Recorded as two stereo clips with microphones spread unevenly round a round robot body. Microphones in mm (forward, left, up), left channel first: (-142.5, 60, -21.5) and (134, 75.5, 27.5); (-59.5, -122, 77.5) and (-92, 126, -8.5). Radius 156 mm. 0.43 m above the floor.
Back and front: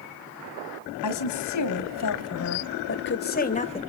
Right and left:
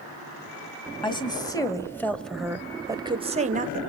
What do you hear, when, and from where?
1.0 s a woman speaking: 160° right, 2.5 m; by 3.8 s 120° left, 1.5 m